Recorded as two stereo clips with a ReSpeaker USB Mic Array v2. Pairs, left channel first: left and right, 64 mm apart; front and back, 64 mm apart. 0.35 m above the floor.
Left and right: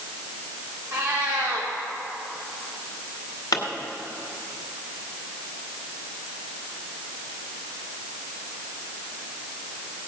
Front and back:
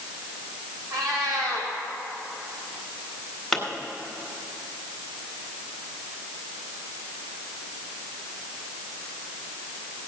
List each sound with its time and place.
0.9 s a cat meowing: 155° right, 4.5 m
3.5 s a pop: 85° left, 2.0 m